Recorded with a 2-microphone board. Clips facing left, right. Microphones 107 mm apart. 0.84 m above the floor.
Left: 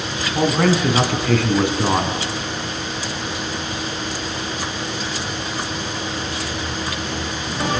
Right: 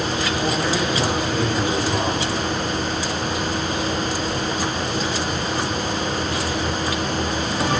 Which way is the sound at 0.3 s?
70° left (ahead or behind).